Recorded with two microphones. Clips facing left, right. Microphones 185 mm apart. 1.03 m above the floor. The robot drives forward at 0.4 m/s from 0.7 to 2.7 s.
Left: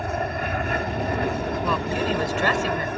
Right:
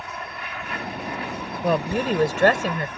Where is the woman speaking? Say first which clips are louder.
Right 6 dB; 55° right (ahead or behind); by 2.9 s 50° right (ahead or behind).